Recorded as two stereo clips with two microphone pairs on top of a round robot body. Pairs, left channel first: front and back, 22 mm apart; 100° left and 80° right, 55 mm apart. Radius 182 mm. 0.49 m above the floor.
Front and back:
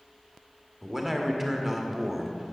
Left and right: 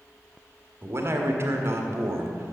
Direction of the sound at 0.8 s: 110° right.